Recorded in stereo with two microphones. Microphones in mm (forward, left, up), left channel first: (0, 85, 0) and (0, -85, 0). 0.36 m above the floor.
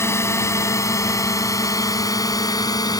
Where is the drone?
15° left (ahead or behind); by 3.0 s 20° left (ahead or behind).